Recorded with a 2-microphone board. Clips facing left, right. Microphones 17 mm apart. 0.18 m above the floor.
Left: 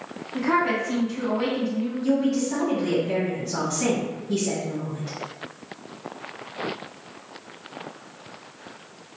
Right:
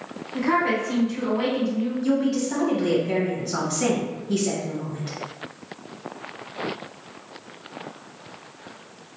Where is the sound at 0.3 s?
10° right (ahead or behind), 1.2 m.